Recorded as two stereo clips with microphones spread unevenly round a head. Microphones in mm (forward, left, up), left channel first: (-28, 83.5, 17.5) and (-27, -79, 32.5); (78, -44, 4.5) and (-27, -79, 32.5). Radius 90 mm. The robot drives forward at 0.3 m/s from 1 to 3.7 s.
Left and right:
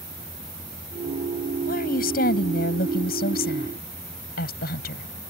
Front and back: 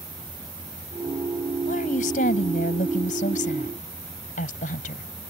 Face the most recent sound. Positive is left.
turn(degrees=50)